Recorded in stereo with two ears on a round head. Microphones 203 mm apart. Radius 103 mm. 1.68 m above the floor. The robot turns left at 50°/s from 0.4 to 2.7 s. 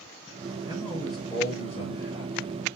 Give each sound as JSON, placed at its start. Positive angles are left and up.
{"t": 0.7, "sound": "a man speaking", "azimuth_deg": -160, "distance_m": 5.0}